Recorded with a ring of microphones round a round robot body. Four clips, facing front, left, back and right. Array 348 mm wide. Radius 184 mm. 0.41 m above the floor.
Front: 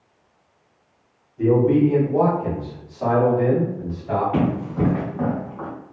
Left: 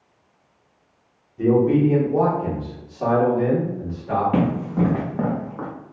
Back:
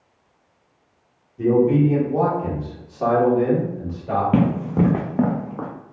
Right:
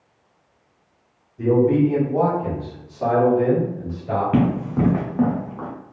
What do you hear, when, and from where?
1.4 s a man speaking: 90° left, 1.5 m; by 4.2 s 170° right, 1.8 m
4.3 s running footsteps: 160° right, 1.4 m; by 5.7 s 165° left, 0.7 m